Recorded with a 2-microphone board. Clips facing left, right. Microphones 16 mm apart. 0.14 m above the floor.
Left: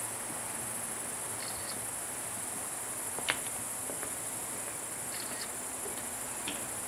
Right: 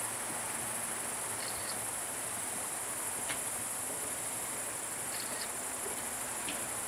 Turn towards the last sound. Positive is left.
turn(degrees=50)  # may be behind; listen again after turning